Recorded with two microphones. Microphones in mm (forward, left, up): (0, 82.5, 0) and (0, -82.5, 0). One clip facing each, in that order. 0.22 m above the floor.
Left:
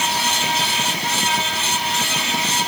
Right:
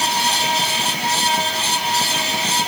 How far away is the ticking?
I don't hear ticking.